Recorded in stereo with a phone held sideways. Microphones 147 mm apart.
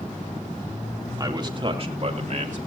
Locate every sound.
1.2 s a man speaking: 30° right (ahead or behind), 2.5 m; by 2.7 s 65° right (ahead or behind), 2.5 m